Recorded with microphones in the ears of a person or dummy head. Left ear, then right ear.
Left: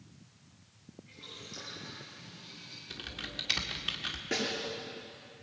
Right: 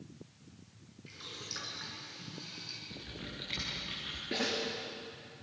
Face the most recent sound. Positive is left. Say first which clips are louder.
# left 1 dB
turn(degrees=35)  # may be behind; listen again after turning